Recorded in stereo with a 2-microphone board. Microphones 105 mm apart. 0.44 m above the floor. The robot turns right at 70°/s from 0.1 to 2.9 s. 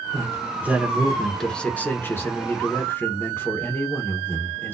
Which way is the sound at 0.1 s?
25° right (ahead or behind).